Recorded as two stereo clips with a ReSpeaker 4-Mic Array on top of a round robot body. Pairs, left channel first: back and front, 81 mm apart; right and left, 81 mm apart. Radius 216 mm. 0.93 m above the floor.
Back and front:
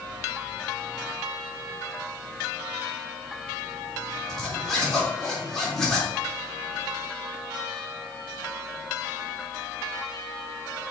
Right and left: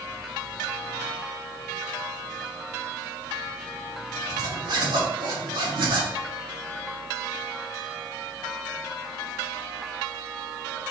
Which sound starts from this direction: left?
A zipper, at 4.3 s.